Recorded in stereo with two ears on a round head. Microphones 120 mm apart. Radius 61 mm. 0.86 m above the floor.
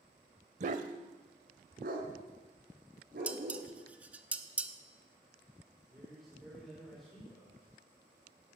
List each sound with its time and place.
0.6 s a dog barking: 55° right (ahead or behind), 0.9 m; by 3.7 s 75° right (ahead or behind), 5 m
3.3 s dishes clattering: 10° right (ahead or behind), 0.8 m
5.8 s a man speaking: centre (ahead or behind), 3.5 m